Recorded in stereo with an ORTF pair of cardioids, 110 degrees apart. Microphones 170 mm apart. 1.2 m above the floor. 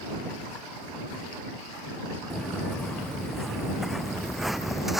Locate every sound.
2.3 s footsteps: straight ahead